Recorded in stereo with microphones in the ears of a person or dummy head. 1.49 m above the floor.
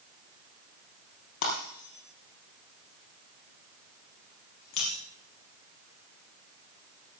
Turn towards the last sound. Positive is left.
turn(degrees=55)  # may be behind; listen again after turning